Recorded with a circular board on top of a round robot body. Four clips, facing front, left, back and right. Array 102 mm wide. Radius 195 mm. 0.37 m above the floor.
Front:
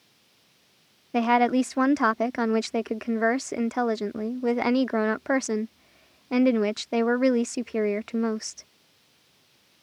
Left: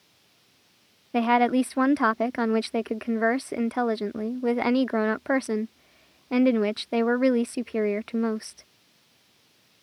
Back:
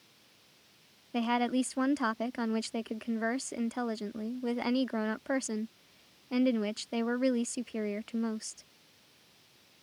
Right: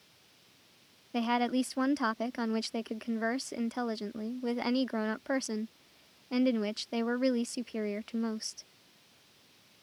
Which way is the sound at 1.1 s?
45° left.